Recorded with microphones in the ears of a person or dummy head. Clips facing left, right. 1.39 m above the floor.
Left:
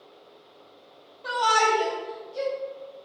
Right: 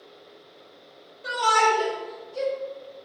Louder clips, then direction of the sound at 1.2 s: Right 1 dB; 20° right (ahead or behind).